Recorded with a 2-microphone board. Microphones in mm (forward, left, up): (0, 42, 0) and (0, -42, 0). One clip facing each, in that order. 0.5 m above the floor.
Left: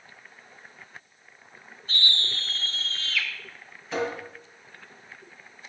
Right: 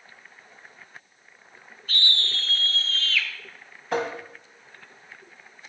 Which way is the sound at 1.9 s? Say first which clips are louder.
Right 1 dB; 30° left (ahead or behind).